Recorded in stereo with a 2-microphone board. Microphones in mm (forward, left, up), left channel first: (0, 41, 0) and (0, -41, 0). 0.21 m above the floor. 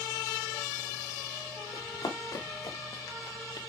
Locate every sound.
1.7 s running footsteps: 60° left (ahead or behind), 4 m